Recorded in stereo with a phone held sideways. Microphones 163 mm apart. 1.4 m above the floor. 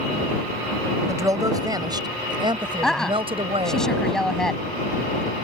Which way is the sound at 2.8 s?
5° left (ahead or behind).